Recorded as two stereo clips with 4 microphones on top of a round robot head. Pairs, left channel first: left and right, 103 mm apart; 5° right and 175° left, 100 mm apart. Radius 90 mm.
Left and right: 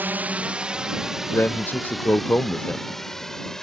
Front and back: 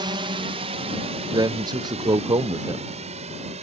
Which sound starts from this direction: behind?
A drone, at 0.0 s.